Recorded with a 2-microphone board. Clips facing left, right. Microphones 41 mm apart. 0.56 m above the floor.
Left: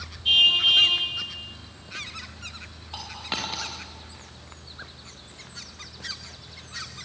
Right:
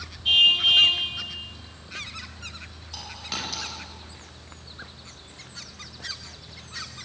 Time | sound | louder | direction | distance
0.2 | a car horn | even | centre (ahead or behind) | 9 m
2.9 | a dropped coin | left 2 dB | 30° left (ahead or behind) | 7.5 m